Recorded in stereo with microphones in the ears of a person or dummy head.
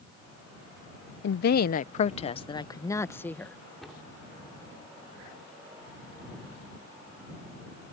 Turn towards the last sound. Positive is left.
turn(degrees=10)  # may be behind; listen again after turning